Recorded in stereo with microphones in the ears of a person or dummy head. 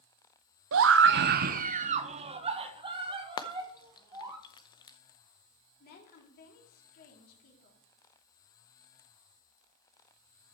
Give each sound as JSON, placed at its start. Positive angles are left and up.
{"t": 0.7, "sound": "a scream", "side_deg": -65, "distance_m": 0.5}
{"t": 3.4, "sound": "frying", "side_deg": 30, "distance_m": 0.7}
{"t": 5.8, "sound": "a woman speaking", "side_deg": 50, "distance_m": 3.0}